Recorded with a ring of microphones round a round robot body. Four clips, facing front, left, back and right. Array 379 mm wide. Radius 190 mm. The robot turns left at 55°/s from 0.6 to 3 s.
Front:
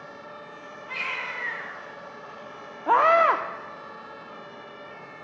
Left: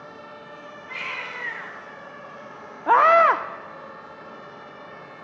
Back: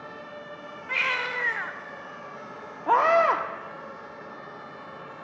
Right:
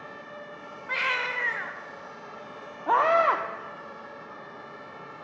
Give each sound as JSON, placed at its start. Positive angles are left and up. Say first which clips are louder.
{"t": 0.9, "sound": "a baby crying", "louder": "right 6 dB, back 5 dB", "azimuth_deg": -120, "distance_m": 0.9}
{"t": 2.9, "sound": "a scream", "louder": "left 6 dB, front 1 dB", "azimuth_deg": 90, "distance_m": 0.7}